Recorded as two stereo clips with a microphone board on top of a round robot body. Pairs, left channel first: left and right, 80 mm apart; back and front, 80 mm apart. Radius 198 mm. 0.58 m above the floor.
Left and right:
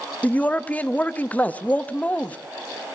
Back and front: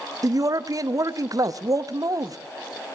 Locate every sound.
0.2 s a man speaking: 25° left, 1.2 m